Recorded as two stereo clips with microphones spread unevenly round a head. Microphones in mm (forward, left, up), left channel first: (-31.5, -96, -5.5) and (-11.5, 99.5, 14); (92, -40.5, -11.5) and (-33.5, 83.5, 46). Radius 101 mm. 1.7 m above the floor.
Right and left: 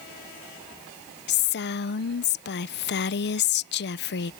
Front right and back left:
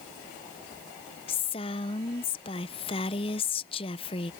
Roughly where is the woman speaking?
Behind right.